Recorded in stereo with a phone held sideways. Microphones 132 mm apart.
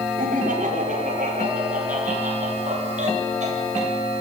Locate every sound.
0.2 s laughter: 85° right, 5 m; by 3.9 s 60° right (ahead or behind), 9 m